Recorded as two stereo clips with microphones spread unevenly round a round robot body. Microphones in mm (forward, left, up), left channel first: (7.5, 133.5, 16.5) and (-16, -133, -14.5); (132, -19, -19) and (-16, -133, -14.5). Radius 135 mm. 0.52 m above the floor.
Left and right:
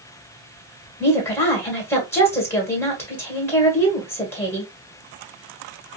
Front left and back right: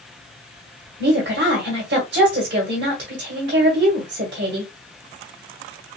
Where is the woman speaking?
170° left, 1.8 m.